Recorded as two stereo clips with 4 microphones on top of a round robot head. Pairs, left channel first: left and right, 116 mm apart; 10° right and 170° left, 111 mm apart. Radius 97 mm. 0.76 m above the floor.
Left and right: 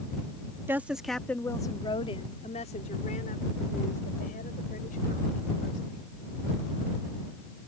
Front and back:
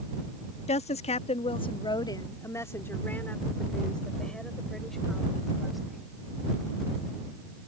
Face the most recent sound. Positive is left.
turn(degrees=80)